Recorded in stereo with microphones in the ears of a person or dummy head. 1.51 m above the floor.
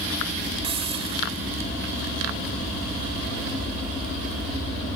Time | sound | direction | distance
0.6 | a hiss | 25° right (ahead or behind) | ?